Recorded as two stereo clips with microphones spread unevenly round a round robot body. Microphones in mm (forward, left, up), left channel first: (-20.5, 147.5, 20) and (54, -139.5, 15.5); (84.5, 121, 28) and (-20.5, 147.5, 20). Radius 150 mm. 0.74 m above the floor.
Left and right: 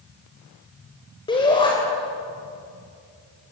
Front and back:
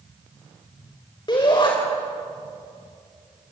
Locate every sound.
1.3 s a shout: 30° left, 4 m